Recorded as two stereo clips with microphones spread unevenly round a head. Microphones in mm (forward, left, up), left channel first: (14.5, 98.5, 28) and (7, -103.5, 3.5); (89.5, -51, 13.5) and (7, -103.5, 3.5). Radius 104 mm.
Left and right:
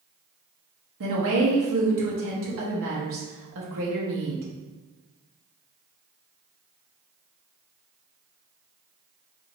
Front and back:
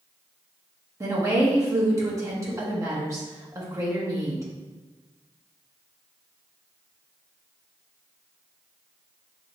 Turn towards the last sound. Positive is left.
turn(degrees=-90)